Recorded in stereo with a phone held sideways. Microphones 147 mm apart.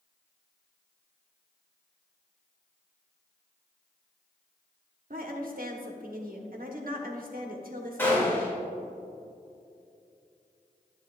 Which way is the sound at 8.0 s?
15° left (ahead or behind).